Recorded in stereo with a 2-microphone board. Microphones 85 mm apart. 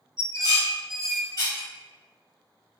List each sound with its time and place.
0.2 s dishes clattering: 40° left (ahead or behind), 1.6 m